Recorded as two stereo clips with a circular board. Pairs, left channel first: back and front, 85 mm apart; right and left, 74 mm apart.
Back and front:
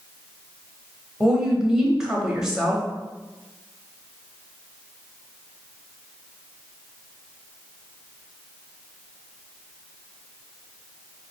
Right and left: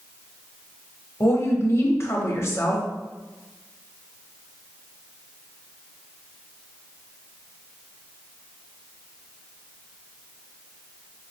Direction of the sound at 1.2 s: 80° right.